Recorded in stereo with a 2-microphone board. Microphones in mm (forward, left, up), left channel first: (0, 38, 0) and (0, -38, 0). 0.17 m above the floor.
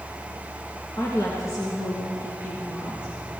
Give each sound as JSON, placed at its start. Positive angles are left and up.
{"t": 1.0, "sound": "a woman speaking", "side_deg": 55, "distance_m": 2.5}